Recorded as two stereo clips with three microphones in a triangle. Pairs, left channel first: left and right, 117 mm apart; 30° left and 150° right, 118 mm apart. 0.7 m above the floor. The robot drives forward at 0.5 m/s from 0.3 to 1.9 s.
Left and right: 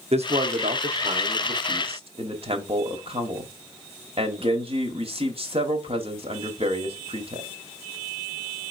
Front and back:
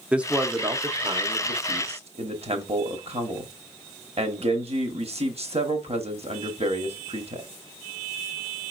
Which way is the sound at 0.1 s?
70° right.